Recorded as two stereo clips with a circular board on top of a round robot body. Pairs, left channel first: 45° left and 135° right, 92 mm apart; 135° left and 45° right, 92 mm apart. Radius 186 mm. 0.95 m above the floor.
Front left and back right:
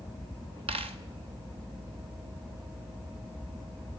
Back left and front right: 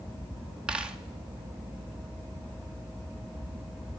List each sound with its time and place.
0.7 s a dropped coin: 125° right, 0.8 m